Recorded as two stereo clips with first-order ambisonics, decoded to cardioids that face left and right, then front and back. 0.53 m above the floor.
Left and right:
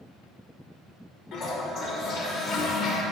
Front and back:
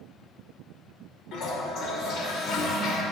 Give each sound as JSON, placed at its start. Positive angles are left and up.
{"t": 1.3, "sound": "a toilet flushing", "azimuth_deg": 40, "distance_m": 1.2}